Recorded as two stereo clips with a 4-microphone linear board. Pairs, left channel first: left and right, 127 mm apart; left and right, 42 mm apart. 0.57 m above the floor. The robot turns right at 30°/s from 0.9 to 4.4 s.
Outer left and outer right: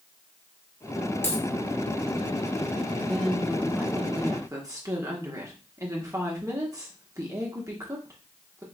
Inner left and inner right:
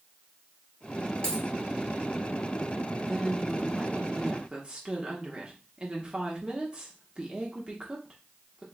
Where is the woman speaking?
175° left, 1.1 m; by 8.6 s 145° right, 1.1 m.